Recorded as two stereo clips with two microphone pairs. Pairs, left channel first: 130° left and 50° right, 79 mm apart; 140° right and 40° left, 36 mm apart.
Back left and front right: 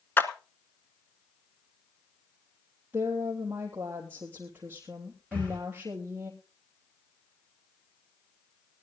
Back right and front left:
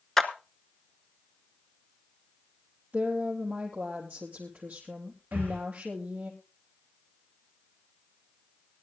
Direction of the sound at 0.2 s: 145° left.